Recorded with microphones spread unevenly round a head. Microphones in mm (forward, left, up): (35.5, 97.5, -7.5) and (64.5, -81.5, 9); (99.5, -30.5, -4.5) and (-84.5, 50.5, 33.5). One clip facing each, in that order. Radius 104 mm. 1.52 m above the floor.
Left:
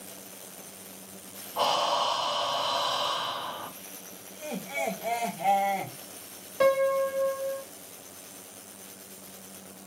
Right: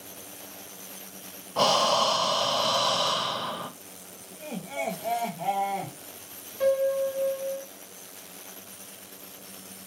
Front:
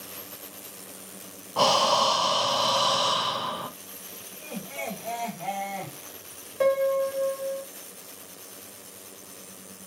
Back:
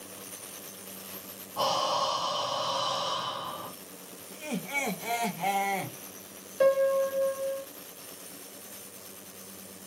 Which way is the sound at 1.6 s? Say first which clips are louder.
Right 4 dB, front 6 dB; 40° right.